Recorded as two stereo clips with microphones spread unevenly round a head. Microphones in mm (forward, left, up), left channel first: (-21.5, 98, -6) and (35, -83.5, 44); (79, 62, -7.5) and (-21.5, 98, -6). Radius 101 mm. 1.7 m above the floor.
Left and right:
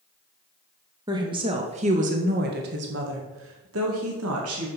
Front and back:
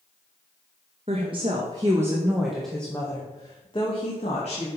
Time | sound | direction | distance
1.1 | a woman speaking | 140° right | 1.9 m